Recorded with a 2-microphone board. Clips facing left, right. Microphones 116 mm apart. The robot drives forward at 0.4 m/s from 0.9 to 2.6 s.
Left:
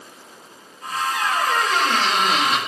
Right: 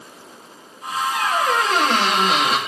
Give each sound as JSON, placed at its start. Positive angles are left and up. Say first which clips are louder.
{"t": 1.1, "sound": "a squeak", "louder": "right 2 dB", "side_deg": -75, "distance_m": 3.5}